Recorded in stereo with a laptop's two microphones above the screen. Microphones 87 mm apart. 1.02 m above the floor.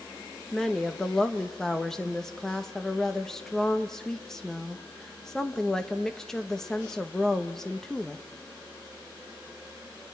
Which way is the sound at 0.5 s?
5° left (ahead or behind).